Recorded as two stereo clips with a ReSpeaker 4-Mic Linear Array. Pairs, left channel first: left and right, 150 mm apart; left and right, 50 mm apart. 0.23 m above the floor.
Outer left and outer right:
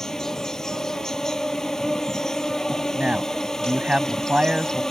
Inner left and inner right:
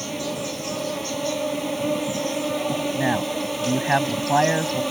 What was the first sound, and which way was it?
An insect, 5° left (ahead or behind).